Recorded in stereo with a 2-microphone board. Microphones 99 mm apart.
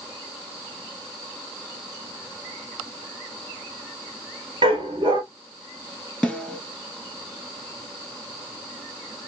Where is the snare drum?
5° left (ahead or behind), 3.5 m.